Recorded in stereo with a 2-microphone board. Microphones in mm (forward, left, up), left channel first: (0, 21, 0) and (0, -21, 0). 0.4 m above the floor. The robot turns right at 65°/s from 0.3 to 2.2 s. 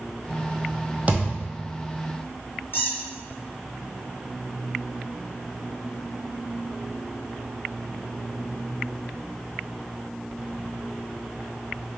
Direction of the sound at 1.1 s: 150° right.